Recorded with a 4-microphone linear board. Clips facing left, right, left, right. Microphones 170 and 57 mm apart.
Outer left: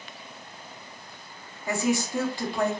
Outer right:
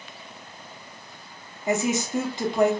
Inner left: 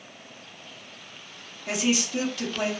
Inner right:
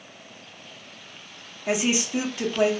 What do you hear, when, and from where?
1.7 s a woman speaking: 20° right (ahead or behind), 0.7 m